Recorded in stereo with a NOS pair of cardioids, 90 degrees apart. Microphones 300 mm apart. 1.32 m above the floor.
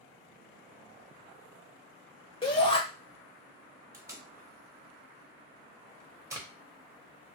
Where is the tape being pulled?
10° right, 0.8 m.